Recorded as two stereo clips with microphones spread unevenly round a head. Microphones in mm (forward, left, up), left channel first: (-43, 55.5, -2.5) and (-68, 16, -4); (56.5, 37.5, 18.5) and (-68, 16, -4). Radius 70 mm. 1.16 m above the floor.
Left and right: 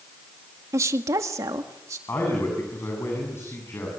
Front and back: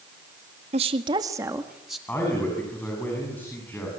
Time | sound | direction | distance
0.7 | a woman speaking | 125° right | 1.9 m
2.1 | a man speaking | 85° left | 8 m